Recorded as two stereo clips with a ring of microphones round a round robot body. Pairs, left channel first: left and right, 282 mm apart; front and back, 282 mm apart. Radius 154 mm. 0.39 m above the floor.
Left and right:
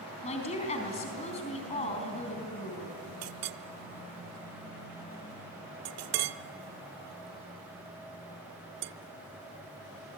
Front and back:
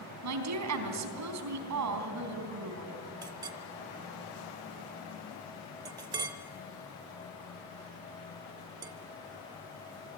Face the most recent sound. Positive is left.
turn(degrees=-105)